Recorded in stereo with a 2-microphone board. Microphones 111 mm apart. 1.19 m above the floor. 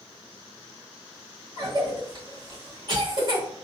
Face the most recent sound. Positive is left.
turn(degrees=-45)  # may be behind; listen again after turning